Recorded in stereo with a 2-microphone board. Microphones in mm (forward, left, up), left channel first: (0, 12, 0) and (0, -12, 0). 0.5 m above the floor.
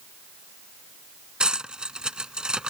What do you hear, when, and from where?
1.4 s cutlery clinking: 35° right (ahead or behind)